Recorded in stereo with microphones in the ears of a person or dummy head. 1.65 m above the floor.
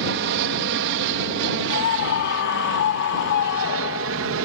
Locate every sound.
0.0 s an aircraft: 60° right (ahead or behind); by 4.5 s 65° right (ahead or behind)
1.7 s a scream: 60° left (ahead or behind)